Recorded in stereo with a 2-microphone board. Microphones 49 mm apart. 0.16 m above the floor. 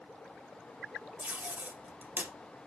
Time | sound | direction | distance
1.2 | tape being pulled | 35° right (ahead or behind) | 2.5 m